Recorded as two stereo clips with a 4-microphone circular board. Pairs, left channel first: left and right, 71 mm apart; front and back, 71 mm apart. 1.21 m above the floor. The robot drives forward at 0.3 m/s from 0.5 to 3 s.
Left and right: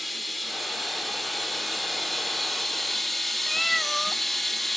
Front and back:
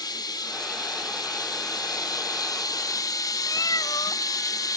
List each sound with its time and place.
0.0 s running water: straight ahead, 1.7 m; by 4.8 s 5° left, 1.0 m
3.5 s a cat meowing: straight ahead, 0.9 m